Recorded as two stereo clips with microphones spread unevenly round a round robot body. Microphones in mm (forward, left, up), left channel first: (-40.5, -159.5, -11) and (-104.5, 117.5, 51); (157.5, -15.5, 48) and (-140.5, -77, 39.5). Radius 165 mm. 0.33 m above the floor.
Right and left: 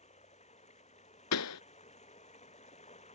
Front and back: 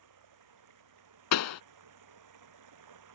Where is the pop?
30° right.